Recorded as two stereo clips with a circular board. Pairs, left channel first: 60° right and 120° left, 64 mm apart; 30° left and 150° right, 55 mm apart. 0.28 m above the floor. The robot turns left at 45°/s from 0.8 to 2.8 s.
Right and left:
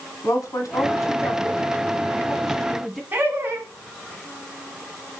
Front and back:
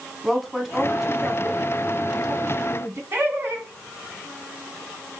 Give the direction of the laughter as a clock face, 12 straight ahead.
6 o'clock.